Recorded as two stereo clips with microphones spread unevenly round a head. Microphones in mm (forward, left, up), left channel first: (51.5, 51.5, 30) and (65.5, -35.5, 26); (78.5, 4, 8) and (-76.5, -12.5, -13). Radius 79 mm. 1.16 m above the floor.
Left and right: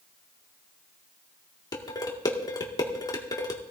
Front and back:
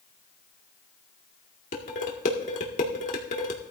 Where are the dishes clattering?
50° left, 1.9 m.